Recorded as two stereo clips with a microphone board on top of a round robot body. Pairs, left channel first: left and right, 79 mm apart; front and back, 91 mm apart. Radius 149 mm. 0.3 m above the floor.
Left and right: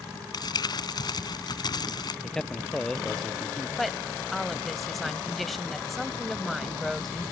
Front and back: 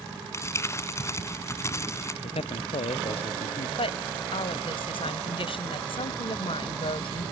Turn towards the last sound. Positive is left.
turn(degrees=0)